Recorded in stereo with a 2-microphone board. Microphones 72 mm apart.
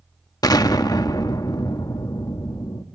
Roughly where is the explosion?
Left.